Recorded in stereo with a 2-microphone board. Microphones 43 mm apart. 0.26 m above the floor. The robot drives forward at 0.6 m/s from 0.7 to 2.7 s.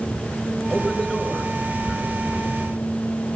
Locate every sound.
0.7 s a man speaking: 5° left (ahead or behind), 4.5 m